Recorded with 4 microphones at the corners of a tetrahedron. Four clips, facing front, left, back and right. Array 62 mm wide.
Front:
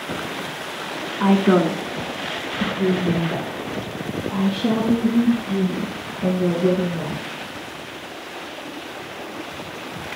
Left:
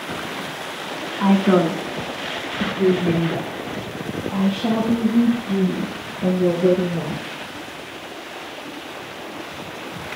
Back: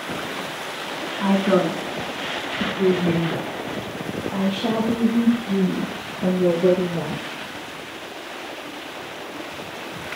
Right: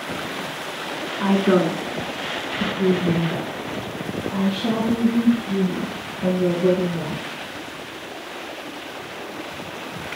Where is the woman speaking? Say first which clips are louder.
Left 2 dB, front 3 dB; 5° right, 1.1 m; by 7.2 s 155° left, 4.5 m.